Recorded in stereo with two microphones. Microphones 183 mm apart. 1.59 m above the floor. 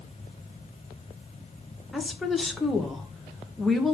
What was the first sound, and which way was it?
A woman speaking, centre (ahead or behind).